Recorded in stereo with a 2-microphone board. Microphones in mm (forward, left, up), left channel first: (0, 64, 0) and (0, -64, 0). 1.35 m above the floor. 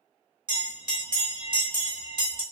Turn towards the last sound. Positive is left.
turn(degrees=-40)  # may be behind; listen again after turning